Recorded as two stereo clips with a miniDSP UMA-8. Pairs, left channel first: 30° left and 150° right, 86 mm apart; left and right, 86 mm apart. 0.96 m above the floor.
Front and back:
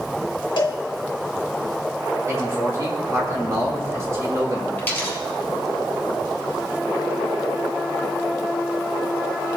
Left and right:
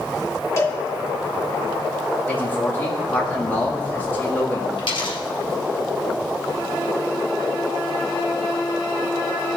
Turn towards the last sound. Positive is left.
turn(degrees=95)